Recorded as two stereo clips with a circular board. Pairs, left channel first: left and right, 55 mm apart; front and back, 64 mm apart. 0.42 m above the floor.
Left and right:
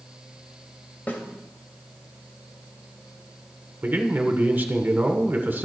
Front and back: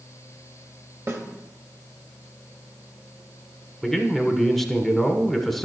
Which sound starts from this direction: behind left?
A snare drum, at 1.1 s.